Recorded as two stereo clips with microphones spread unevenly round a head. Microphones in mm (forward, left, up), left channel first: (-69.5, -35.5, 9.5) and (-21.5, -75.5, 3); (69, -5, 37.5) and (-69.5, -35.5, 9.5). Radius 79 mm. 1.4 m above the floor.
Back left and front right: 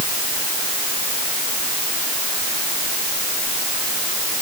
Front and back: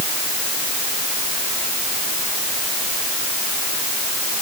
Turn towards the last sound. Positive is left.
No sound to turn to.